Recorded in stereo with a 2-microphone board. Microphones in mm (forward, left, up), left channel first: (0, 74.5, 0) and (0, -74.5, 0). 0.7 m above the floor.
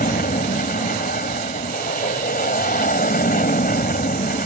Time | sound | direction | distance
0.0 | an aircraft | 70° left (ahead or behind) | ?